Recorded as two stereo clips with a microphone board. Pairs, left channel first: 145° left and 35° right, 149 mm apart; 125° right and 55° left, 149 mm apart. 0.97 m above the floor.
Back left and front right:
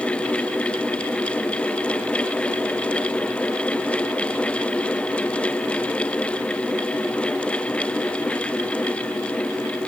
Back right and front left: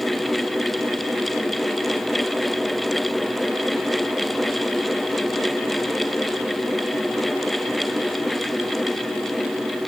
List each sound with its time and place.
Only background noise.